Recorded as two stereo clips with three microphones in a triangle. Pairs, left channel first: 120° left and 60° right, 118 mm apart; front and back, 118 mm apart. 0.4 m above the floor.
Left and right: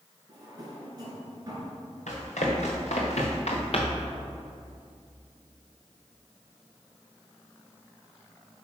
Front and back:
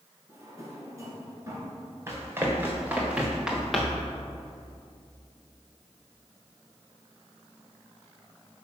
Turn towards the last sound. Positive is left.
turn(degrees=85)